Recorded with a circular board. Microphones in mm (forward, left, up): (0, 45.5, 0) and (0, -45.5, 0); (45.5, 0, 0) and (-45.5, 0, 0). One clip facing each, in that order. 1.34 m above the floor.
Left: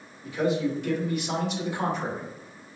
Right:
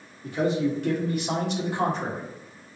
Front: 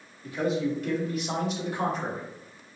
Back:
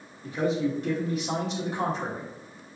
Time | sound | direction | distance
0.2 | a man speaking | 120° right | 2 m